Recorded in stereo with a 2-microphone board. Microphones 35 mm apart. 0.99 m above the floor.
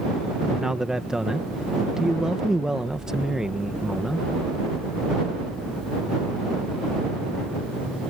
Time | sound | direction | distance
0.5 | a man speaking | 20° right (ahead or behind) | ?